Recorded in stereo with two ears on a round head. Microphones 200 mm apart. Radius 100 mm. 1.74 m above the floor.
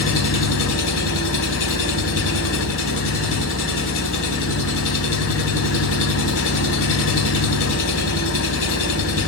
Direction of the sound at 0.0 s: 65° left (ahead or behind).